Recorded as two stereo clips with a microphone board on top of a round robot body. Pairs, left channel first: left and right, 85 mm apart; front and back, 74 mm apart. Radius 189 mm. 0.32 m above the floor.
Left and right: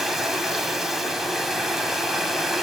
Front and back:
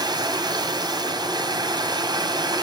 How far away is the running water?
About 2 m.